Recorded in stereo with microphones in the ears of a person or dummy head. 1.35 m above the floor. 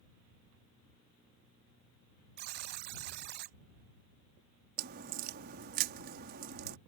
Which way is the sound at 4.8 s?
55° right (ahead or behind).